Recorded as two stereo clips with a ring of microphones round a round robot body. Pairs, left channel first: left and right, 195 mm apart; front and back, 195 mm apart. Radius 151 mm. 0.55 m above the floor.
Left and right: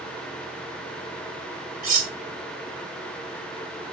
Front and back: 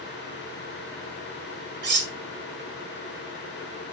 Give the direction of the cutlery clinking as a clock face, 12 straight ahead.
5 o'clock.